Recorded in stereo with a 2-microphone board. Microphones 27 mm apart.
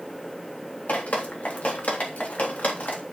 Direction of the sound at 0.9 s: 75° left (ahead or behind).